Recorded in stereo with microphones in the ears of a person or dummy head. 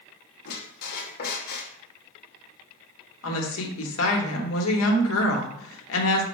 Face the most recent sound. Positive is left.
turn(degrees=70)  # may be behind; listen again after turning